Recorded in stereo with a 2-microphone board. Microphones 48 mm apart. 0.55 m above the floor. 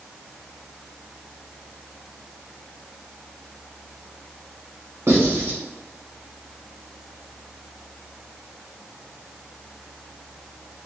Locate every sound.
5.1 s writing: 60° right (ahead or behind), 1.4 m